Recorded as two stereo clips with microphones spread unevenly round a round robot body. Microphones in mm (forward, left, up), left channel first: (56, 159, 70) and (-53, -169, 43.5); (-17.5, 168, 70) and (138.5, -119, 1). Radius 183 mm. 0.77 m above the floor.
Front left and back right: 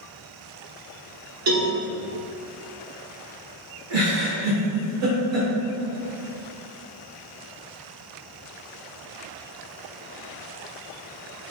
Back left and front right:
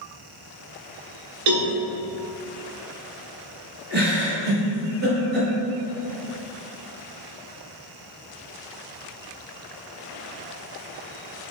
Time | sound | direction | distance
1.5 | a cowbell | 55° right | 0.6 m
3.9 | a giggle | 115° right | 1.4 m